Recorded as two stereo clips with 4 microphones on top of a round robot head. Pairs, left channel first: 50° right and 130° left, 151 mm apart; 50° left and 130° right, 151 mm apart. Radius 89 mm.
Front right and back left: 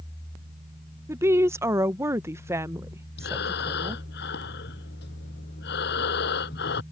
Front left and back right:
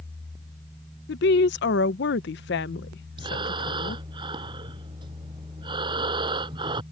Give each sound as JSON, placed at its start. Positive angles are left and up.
{"t": 1.1, "sound": "a woman speaking", "azimuth_deg": 55}
{"t": 3.2, "sound": "breathing", "azimuth_deg": -70}